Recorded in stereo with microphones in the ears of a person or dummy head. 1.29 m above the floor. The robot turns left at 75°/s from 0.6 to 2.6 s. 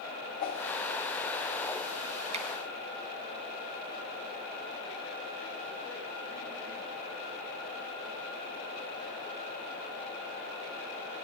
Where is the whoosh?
45° left (ahead or behind), 1.3 m.